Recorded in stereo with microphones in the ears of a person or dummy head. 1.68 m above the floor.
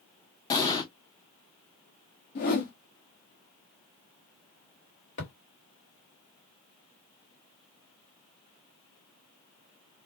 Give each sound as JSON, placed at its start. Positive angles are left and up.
{"t": 0.5, "sound": "an explosion", "side_deg": 20, "distance_m": 0.9}
{"t": 2.4, "sound": "a whoosh", "side_deg": 40, "distance_m": 0.5}
{"t": 5.2, "sound": "a thud", "side_deg": 45, "distance_m": 1.6}